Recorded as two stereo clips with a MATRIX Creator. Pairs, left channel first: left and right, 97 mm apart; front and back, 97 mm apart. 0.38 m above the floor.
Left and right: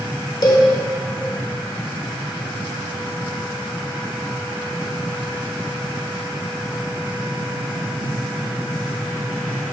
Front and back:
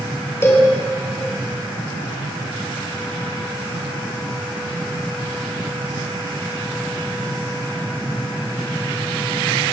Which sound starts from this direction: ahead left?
A cowbell, at 0.4 s.